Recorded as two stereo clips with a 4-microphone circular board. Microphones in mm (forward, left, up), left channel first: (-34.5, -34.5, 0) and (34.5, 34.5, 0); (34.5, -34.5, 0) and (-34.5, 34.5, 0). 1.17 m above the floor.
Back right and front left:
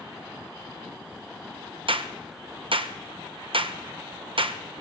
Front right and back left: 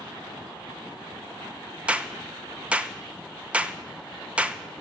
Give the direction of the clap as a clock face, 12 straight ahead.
10 o'clock.